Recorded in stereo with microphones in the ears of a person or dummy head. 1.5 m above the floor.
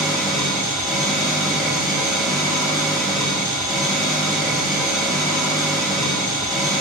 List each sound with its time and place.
0.0 s an engine running: centre (ahead or behind), 3.5 m